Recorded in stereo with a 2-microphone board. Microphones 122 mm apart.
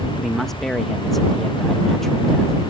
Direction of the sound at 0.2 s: 5° left (ahead or behind).